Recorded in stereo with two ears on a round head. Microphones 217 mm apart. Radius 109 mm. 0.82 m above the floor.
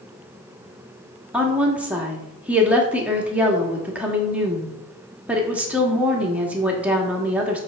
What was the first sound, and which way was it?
A woman speaking, 5° right (ahead or behind).